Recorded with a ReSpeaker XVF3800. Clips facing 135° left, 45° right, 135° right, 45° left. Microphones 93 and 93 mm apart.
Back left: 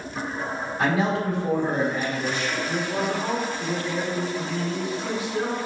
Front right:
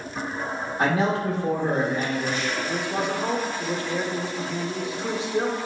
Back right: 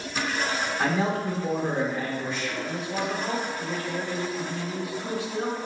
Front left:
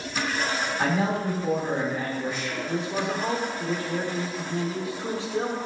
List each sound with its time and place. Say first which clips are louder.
0.8 s a man speaking: even, even; 35° right, 1.4 m
2.7 s a man speaking: back left 2 dB, front left 4 dB; 5° left, 0.8 m